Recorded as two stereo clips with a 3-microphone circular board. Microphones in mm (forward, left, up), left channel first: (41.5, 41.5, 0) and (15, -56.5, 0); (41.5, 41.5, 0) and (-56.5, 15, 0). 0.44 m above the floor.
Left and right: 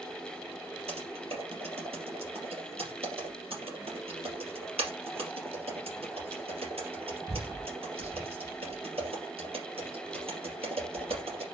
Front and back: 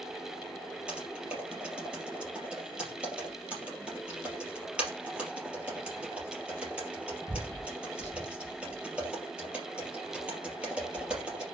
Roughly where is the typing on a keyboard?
Right.